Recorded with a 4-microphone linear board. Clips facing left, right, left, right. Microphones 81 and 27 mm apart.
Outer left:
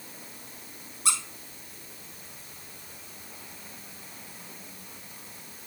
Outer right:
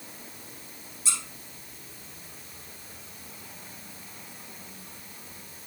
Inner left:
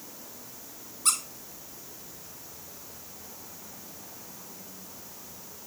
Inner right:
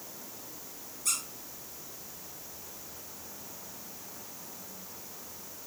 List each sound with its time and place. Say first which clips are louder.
1.1 s a squeak: outer left 6 dB, inner left 5 dB; 60° left (ahead or behind), 2.5 m